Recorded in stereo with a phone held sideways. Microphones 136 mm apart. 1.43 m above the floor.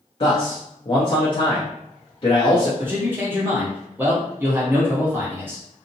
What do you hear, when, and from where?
0.2 s a man speaking: 45° left (ahead or behind), 0.7 m
2.8 s a man speaking: 15° right (ahead or behind), 0.9 m